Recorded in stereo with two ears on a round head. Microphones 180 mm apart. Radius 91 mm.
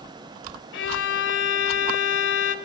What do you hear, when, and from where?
0.7 s a violin: 65° left (ahead or behind), 2.5 m